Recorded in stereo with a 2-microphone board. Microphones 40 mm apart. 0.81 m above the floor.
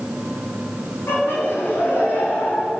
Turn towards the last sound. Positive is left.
turn(degrees=75)  # may be behind; listen again after turning